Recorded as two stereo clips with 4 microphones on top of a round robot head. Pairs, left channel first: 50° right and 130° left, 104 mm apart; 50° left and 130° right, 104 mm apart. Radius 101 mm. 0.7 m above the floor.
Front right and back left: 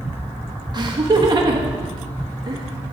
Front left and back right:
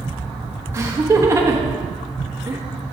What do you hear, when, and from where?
0.7 s laughter: 170° left, 1.3 m